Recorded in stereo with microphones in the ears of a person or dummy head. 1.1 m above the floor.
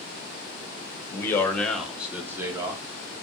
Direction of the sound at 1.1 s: 25° left (ahead or behind).